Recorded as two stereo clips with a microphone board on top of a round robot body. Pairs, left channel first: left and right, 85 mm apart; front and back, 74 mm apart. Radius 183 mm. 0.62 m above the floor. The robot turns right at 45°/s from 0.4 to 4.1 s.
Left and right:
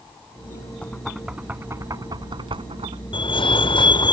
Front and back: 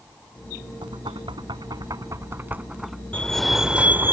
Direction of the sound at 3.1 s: 75° left.